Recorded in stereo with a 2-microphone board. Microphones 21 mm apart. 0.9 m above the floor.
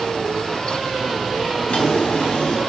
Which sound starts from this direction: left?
A drawer, at 1.7 s.